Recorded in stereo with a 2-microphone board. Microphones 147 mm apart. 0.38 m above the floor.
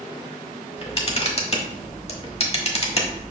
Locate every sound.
0.8 s a camera shutter: 40° left (ahead or behind), 0.9 m